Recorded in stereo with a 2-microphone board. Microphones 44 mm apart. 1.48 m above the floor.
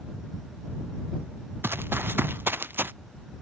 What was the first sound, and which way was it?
Running footsteps, 65° right (ahead or behind).